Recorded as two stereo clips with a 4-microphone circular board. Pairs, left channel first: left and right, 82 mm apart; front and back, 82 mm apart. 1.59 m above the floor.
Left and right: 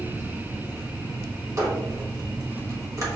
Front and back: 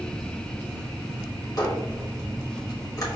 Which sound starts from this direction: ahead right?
A squeak, at 1.6 s.